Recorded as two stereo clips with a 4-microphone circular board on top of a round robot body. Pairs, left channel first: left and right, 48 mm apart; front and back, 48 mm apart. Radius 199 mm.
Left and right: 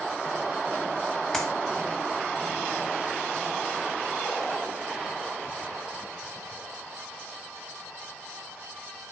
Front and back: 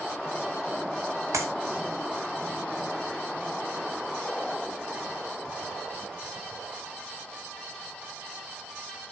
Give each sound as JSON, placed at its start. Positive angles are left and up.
{"t": 1.3, "sound": "a clap", "azimuth_deg": 170, "distance_m": 2.5}